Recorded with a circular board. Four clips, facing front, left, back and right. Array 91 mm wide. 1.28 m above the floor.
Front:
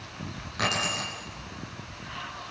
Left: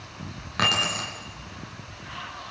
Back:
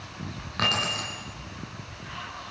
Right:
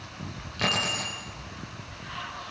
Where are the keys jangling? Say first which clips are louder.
Left 3 dB, back 1 dB; 110° left, 9.5 m.